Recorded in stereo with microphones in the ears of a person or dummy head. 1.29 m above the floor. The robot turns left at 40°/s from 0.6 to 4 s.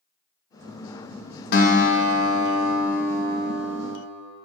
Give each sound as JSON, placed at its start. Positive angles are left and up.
{"t": 1.5, "sound": "a guitar", "azimuth_deg": 80, "distance_m": 0.8}